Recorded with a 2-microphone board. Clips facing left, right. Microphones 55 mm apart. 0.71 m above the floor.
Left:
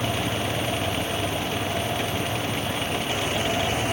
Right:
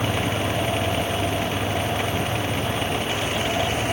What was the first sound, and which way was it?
Only background noise.